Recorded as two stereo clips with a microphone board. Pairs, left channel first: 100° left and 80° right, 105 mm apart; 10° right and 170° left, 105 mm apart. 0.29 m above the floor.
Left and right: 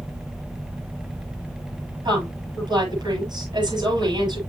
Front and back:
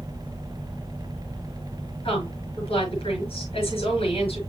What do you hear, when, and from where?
2.0 s a woman speaking: 35° right, 6.5 m